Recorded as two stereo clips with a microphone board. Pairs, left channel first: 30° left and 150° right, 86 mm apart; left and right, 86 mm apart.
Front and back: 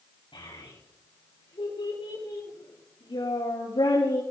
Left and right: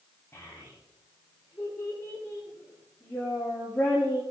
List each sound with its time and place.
0.3 s a child speaking: 25° left, 9.5 m; by 4.2 s 5° left, 10 m